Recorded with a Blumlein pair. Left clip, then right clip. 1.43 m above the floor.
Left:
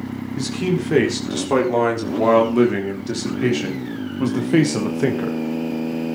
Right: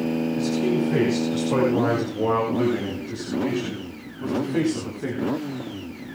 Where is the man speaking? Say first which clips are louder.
Left 3 dB; 25° left, 4.5 m; by 5.4 s 65° left, 1.7 m.